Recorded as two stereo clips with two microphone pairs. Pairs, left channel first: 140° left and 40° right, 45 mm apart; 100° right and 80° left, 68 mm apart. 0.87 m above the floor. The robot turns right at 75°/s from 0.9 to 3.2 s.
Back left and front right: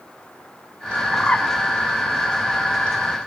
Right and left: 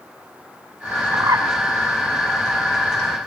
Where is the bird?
65° left, 1.4 m; by 1.5 s 95° left, 1.4 m.